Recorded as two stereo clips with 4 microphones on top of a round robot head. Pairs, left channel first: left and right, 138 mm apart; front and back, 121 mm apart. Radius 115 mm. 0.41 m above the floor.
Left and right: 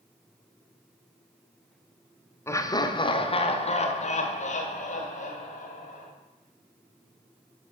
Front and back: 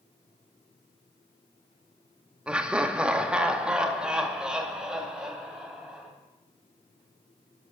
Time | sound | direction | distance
2.5 | laughter | 115° left | 1.1 m